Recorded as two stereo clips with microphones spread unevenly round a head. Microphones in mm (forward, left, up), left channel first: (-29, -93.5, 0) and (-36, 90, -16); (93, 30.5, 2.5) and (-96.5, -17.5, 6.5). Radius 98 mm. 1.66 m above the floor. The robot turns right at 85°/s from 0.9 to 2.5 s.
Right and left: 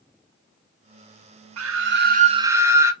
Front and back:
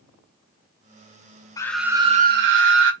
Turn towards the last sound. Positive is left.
turn(degrees=170)